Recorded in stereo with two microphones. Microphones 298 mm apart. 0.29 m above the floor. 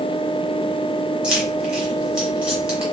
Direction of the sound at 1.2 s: Centre (ahead or behind).